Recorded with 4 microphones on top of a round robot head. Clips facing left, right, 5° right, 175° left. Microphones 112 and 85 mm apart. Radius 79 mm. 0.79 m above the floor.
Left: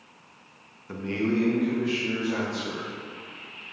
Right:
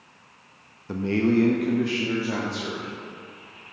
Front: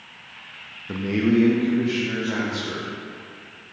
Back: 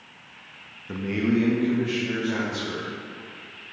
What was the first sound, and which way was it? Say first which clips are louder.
A man speaking: right 5 dB, front 3 dB; 70° right.